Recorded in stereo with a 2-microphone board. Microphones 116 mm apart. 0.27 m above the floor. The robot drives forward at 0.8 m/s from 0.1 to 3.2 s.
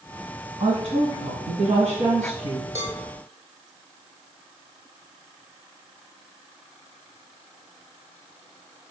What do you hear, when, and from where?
0.6 s a woman speaking: 50° right (ahead or behind), 2 m; by 2.6 s 60° right (ahead or behind), 2.0 m
2.8 s a cowbell: 85° right, 3.5 m